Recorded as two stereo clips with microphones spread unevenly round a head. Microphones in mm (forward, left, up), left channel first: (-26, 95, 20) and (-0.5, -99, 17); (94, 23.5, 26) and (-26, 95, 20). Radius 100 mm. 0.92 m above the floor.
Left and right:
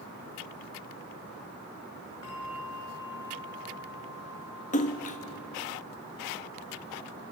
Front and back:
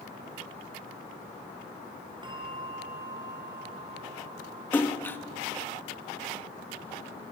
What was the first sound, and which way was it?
A bell, 95° left.